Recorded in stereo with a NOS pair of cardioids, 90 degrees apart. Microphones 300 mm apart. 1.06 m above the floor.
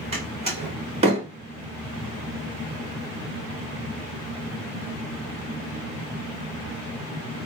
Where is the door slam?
20° right, 2 m.